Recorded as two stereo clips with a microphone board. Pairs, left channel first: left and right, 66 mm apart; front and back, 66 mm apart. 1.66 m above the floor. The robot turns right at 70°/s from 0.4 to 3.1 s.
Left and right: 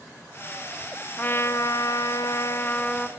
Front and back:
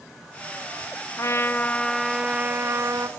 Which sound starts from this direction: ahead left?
A trumpet, at 1.2 s.